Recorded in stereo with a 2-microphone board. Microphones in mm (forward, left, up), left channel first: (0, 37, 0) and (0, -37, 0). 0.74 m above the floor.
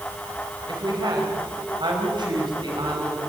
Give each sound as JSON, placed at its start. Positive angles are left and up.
{"t": 0.7, "sound": "a woman speaking", "side_deg": -75, "distance_m": 4.0}